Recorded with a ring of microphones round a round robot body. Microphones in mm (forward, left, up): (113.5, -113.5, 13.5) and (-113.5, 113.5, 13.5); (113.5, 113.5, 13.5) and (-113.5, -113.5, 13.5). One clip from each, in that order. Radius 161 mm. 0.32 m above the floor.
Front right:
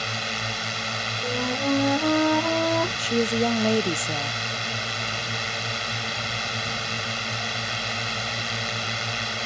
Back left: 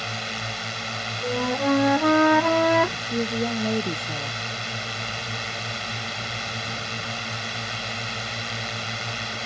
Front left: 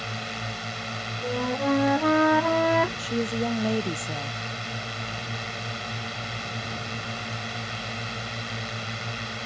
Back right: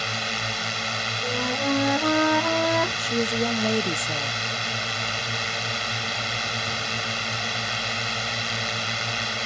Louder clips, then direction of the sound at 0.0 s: Front right 2 dB, back right 6 dB; 120° right.